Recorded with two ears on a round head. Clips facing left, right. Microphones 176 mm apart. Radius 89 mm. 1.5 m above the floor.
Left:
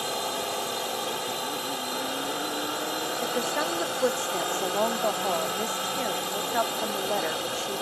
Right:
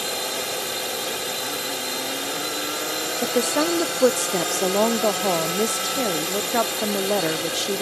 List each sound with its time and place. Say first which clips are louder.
0.0 s a drone: right 2 dB; 25° right (ahead or behind)
3.2 s a woman speaking: right 9 dB; 50° right (ahead or behind)